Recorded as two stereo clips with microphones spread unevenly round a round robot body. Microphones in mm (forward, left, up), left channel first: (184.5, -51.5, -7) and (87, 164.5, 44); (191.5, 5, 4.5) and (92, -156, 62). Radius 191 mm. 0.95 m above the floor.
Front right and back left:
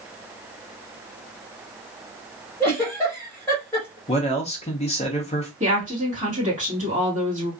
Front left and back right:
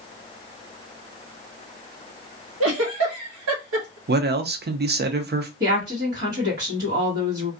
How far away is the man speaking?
About 0.6 m.